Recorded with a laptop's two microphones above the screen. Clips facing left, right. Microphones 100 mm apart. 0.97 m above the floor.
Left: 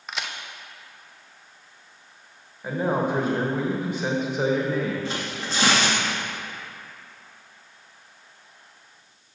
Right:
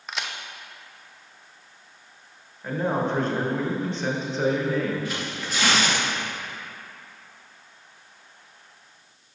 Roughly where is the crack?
Centre.